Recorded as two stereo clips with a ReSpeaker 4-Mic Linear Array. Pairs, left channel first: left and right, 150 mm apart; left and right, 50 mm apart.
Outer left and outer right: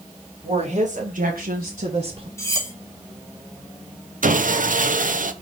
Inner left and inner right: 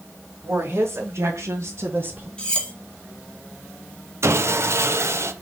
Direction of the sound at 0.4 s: 45° right (ahead or behind).